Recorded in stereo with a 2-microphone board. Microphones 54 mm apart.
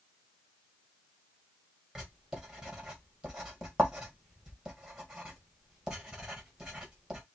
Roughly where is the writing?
Centre.